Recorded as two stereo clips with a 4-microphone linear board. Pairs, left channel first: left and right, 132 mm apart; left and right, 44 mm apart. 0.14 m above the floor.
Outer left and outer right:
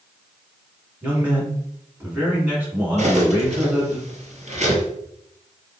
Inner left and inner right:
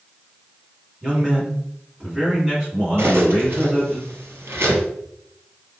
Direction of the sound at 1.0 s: 15° right (ahead or behind).